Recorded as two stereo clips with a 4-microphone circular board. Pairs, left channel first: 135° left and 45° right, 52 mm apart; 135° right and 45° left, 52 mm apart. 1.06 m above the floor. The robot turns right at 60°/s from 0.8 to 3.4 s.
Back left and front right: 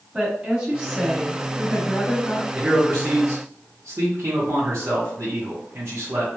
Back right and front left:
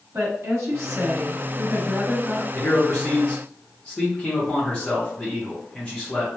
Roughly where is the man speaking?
Behind right.